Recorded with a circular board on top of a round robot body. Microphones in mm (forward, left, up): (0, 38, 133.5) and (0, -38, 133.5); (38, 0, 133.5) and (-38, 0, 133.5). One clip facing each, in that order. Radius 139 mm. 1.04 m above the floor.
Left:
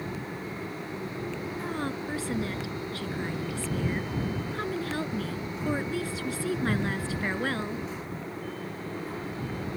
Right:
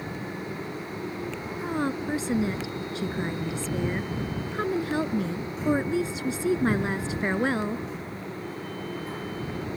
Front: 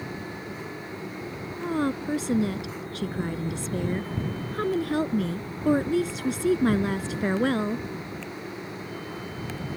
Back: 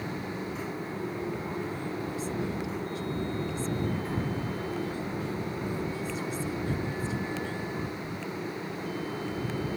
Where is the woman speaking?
20° right.